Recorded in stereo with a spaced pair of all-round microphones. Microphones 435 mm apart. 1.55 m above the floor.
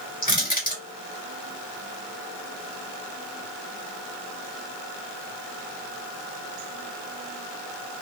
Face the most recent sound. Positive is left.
turn(degrees=20)  # may be behind; listen again after turning